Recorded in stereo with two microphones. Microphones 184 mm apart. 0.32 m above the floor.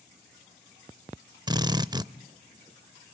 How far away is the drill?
About 0.5 m.